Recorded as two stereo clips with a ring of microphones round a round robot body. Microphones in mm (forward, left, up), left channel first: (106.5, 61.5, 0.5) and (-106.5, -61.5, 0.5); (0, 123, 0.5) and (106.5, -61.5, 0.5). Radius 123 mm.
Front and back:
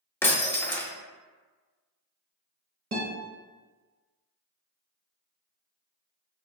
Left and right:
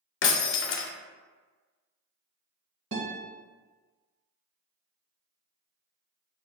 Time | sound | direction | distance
0.2 | breaking glass | 110° left | 0.5 m
2.9 | a guitar | 95° right | 1.2 m